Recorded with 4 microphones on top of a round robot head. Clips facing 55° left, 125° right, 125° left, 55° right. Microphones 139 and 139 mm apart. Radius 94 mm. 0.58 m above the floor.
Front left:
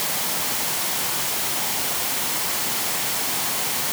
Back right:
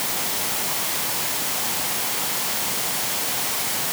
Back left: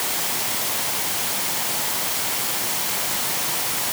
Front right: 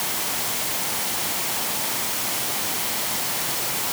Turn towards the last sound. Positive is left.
No sound to turn to.